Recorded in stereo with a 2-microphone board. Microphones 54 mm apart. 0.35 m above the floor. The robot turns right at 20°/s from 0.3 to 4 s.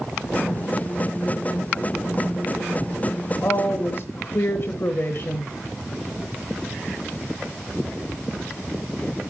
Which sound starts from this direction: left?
A woman speaking, at 3.4 s.